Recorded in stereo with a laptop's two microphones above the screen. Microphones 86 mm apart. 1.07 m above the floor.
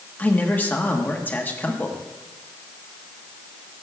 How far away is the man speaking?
About 1.2 m.